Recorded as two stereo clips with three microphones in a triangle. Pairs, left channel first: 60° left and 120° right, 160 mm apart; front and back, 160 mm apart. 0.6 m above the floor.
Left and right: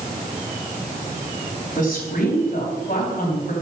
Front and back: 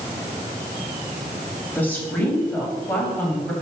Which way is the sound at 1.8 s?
80° left.